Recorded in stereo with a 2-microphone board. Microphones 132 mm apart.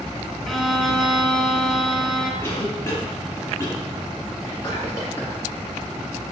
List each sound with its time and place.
0.5 s a violin: centre (ahead or behind), 0.8 m
2.4 s a cough: 20° left (ahead or behind), 1.1 m
4.4 s whispering: 20° left (ahead or behind), 1.9 m